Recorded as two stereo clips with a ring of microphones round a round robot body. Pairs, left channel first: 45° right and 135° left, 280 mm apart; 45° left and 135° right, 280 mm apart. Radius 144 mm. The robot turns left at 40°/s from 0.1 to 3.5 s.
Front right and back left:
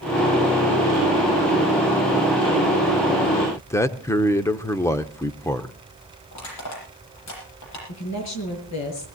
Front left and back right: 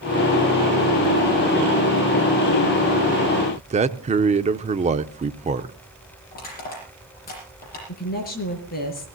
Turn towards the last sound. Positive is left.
turn(degrees=-15)